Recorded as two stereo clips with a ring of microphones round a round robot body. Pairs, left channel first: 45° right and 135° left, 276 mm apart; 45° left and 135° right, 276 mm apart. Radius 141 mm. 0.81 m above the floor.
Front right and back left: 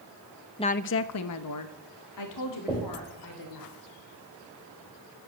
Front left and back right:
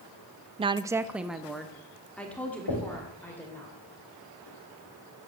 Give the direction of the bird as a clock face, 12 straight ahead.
I don't hear a bird.